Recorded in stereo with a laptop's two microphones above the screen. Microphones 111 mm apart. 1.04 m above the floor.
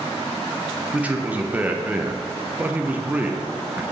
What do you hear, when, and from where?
0.9 s a man speaking: 15° right (ahead or behind), 0.7 m